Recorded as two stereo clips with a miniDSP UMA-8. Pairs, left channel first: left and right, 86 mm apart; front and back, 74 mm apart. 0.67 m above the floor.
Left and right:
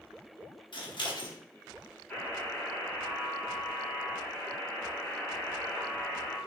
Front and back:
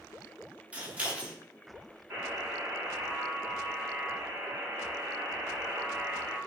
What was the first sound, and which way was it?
Scissors, 110° left.